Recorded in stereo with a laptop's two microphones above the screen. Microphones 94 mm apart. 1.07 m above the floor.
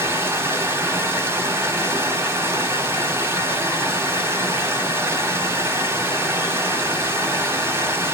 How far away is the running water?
About 1.0 m.